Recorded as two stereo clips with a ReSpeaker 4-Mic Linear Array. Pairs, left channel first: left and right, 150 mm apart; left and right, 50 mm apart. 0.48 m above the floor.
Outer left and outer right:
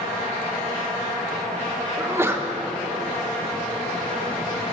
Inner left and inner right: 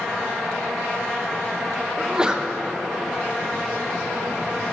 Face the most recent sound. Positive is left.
turn(degrees=-15)  # may be behind; listen again after turning